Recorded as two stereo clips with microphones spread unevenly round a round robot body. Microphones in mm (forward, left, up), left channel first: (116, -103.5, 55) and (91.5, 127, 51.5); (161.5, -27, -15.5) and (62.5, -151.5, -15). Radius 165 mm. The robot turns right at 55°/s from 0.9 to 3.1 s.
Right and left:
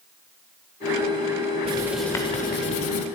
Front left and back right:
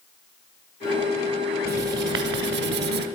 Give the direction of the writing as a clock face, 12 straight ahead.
6 o'clock.